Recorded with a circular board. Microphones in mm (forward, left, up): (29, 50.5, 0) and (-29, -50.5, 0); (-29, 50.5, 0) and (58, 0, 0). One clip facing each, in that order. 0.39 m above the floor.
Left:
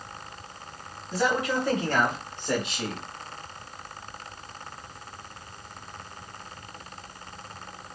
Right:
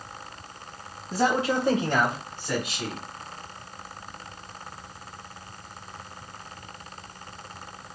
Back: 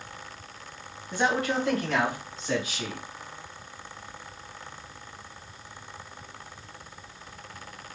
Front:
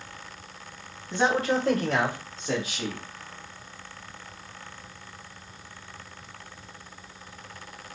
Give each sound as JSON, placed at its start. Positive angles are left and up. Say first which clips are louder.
{"t": 1.1, "sound": "a man speaking", "louder": "right 2 dB, front 2 dB", "azimuth_deg": -95, "distance_m": 1.5}